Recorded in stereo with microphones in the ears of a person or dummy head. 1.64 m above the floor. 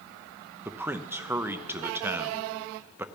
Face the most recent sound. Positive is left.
turn(degrees=-10)  # may be behind; listen again after turning